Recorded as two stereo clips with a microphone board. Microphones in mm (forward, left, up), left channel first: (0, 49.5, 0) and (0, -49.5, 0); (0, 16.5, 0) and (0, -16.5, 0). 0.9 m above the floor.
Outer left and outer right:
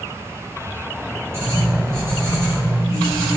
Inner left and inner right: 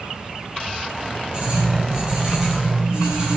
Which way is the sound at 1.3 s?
25° right (ahead or behind).